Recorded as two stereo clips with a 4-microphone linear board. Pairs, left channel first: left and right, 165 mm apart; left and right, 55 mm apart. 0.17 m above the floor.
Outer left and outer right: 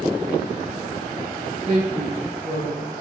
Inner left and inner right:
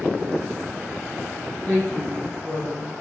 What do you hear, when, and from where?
1.7 s a woman speaking: 25° left (ahead or behind), 2.5 m; by 3.0 s 5° left (ahead or behind), 4 m